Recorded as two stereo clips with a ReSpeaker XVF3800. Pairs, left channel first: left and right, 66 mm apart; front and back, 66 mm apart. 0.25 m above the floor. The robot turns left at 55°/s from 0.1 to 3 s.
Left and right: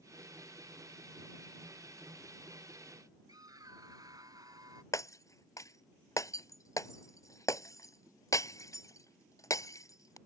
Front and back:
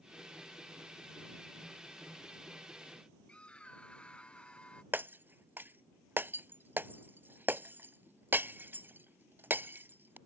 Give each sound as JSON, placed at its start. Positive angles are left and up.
{"t": 3.3, "sound": "a scream", "azimuth_deg": -70}
{"t": 4.9, "sound": "breaking glass", "azimuth_deg": 120}